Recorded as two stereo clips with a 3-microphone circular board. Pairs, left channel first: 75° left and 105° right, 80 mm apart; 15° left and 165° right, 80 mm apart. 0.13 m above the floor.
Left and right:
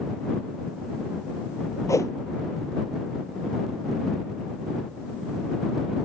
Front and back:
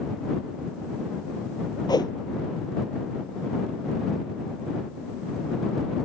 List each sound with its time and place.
1.9 s a whoosh: 35° left